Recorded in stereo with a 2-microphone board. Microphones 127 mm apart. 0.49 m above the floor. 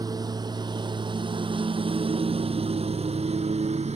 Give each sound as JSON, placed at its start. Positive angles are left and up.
{"t": 0.0, "sound": "a lawn mower", "side_deg": -30}